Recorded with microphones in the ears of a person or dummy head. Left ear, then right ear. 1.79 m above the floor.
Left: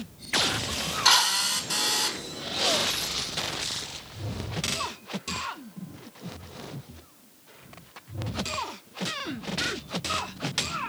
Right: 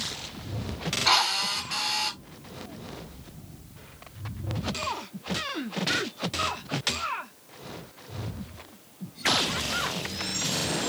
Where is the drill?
85° left, 6 m.